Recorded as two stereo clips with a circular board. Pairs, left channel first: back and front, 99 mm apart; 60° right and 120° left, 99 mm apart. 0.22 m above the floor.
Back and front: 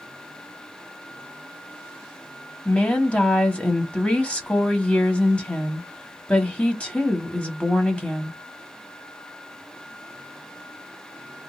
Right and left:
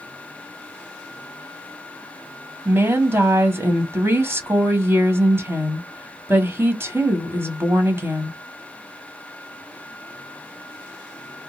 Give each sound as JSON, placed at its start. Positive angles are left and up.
{"t": 2.6, "sound": "a woman speaking", "azimuth_deg": 120, "distance_m": 1.0}